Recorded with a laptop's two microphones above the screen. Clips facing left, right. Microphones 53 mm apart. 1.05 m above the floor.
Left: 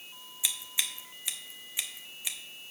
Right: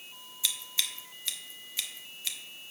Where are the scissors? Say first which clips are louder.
Right 1 dB; 15° left (ahead or behind), 0.6 m.